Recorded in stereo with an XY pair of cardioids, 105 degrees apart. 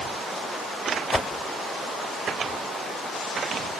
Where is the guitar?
No guitar in this recording.